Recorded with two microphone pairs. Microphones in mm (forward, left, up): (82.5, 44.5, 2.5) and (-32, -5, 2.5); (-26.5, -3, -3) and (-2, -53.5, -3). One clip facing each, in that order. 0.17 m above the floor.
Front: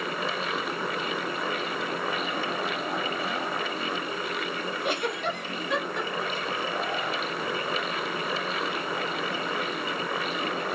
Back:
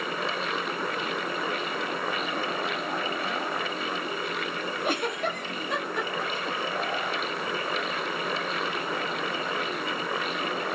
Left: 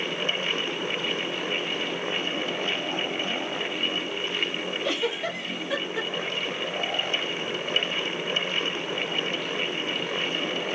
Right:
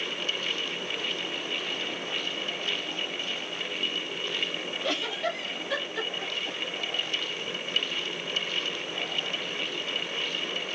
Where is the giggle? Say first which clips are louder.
Back 1 dB, left 1 dB; 165° right, 1.3 m.